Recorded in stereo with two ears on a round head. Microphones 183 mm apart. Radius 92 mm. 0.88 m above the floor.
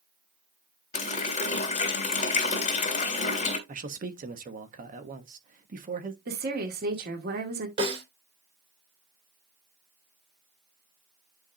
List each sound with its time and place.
0.9 s a running tap: 35° left (ahead or behind), 2.5 m
3.7 s a man speaking: 40° right (ahead or behind), 1.2 m
6.3 s a woman speaking: 45° right (ahead or behind), 2 m
7.8 s a snare drum: 30° right (ahead or behind), 4 m